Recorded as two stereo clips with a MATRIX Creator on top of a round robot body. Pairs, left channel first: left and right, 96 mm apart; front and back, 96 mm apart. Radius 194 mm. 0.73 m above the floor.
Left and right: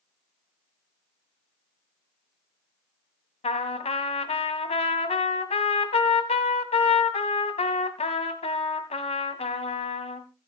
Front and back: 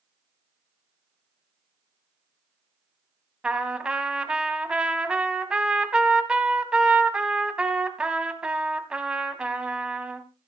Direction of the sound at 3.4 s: 100° left.